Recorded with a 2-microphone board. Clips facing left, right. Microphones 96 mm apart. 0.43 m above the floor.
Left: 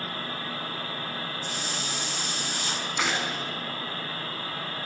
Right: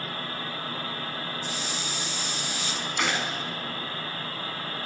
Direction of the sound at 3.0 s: 5° left (ahead or behind).